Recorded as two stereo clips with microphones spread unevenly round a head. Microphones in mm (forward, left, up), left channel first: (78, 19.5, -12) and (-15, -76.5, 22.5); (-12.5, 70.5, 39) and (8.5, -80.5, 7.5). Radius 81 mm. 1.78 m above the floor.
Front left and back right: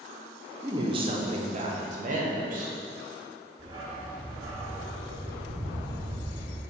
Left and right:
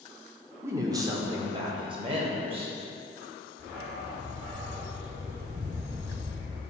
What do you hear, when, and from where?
0.6 s a woman speaking: 165° right, 0.7 m; by 2.8 s 140° right, 1.7 m
3.6 s a dog barking: 120° right, 1.7 m